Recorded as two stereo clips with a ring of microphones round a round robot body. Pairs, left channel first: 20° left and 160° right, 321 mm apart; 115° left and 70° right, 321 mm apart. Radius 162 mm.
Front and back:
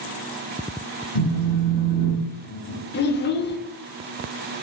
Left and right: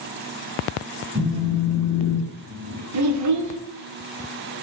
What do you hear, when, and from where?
1.1 s a phone buzzing: 25° left, 1.2 m
2.9 s a child speaking: 35° right, 0.6 m